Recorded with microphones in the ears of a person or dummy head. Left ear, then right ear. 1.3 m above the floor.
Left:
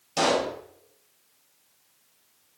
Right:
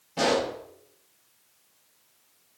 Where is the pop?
85° left, 4.5 m.